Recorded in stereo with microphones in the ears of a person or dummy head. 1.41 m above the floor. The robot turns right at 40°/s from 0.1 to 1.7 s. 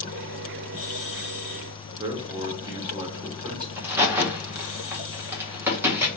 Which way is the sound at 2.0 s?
20° right (ahead or behind).